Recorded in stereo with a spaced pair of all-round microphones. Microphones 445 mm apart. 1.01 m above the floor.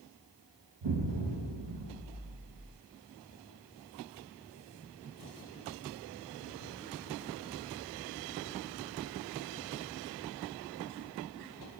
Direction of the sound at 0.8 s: 75° right (ahead or behind).